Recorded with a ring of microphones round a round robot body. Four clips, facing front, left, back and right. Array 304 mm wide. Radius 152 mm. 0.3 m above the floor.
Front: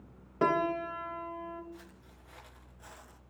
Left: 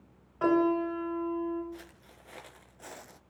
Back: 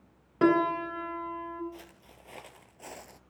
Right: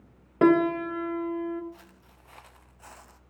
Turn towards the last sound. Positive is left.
turn(degrees=140)